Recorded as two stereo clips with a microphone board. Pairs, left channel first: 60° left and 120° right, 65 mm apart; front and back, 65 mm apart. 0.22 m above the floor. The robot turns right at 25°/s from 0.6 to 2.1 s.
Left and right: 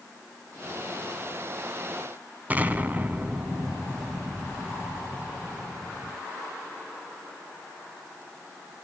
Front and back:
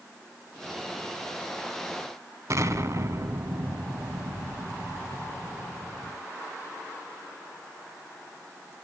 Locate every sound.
2.5 s an explosion: straight behind, 1.0 m